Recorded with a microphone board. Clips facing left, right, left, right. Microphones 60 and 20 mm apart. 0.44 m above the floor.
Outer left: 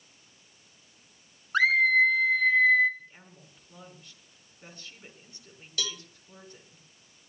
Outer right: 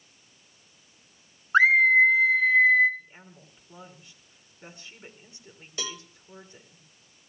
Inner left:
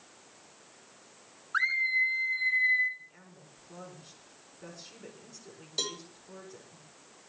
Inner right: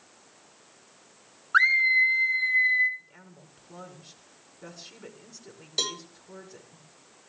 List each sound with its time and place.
1.5 s a scream: 30° right (ahead or behind), 0.8 m; by 2.9 s 10° right (ahead or behind), 1.9 m
3.0 s a woman speaking: 15° right (ahead or behind), 5.5 m
5.8 s a cowbell: 25° right (ahead or behind), 0.7 m